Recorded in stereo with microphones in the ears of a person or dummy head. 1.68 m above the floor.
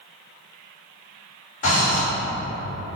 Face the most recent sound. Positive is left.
turn(degrees=40)  # may be behind; listen again after turning